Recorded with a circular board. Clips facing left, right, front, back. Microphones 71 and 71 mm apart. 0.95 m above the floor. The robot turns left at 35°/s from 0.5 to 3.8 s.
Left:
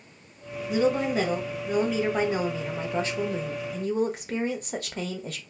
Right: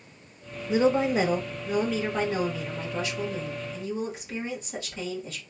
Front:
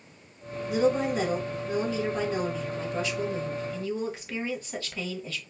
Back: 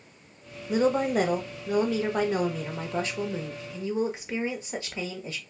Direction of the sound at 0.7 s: 140° right.